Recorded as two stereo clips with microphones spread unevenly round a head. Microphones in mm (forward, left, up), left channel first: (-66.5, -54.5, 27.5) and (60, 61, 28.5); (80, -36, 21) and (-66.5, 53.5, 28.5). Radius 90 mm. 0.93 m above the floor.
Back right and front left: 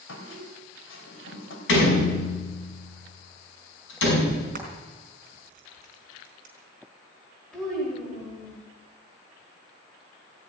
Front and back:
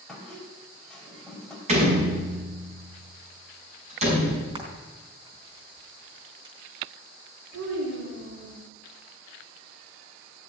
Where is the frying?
85° left, 4 m.